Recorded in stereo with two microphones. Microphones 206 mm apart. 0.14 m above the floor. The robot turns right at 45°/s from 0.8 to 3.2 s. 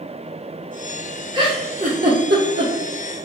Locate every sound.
1.3 s a giggle: 20° right (ahead or behind), 0.9 m; by 3.2 s 60° right (ahead or behind), 0.9 m